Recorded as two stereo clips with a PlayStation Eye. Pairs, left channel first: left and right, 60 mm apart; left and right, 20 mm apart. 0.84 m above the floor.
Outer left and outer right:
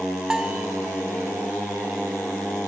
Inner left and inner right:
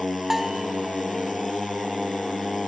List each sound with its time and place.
0.3 s a bell: 15° right (ahead or behind), 1.0 m